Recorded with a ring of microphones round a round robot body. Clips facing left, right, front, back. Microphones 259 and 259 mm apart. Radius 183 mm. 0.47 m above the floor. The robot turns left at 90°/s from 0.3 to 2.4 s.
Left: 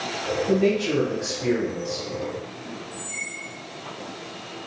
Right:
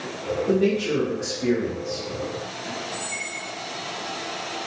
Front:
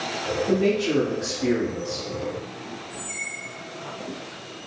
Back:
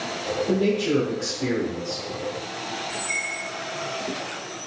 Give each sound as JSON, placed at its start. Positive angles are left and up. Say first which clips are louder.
{"t": 0.5, "sound": "a man speaking", "louder": "even, even", "azimuth_deg": -100, "distance_m": 1.1}
{"t": 2.9, "sound": "a squeak", "louder": "right 3 dB, back 3 dB", "azimuth_deg": -175, "distance_m": 0.6}